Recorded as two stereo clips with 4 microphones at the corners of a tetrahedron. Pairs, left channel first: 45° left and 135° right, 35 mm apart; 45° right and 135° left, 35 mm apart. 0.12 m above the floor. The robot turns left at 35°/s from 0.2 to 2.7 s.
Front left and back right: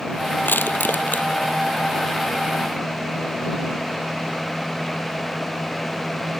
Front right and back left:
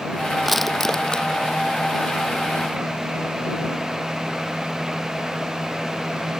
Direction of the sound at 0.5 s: 45° left.